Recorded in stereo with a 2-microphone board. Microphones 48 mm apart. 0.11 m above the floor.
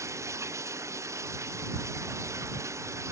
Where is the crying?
No crying in this recording.